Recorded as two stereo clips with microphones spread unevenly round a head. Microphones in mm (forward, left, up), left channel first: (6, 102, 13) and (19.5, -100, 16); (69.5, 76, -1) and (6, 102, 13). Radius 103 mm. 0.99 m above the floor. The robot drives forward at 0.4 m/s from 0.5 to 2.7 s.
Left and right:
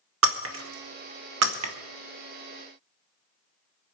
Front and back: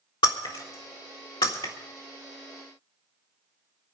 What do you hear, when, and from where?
0.2 s breaking glass: 65° right, 1.4 m; by 1.7 s 85° right, 1.3 m